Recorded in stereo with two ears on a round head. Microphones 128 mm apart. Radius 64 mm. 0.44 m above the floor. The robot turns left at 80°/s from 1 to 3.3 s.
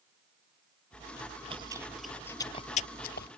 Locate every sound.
0.9 s chewing: 80° right; by 3.3 s 80° left